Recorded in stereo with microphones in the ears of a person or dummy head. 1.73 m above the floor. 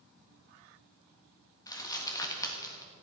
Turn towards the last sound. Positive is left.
turn(degrees=20)  # may be behind; listen again after turning